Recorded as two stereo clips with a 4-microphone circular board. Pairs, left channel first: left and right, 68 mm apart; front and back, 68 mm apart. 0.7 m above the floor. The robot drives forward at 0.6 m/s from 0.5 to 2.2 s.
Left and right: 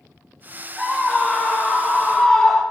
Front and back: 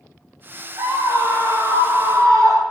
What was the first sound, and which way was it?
A scream, 175° right.